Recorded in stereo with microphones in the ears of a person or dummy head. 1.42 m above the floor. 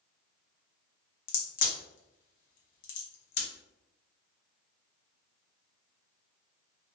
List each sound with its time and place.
1.3 s a crack: 70° left (ahead or behind), 0.8 m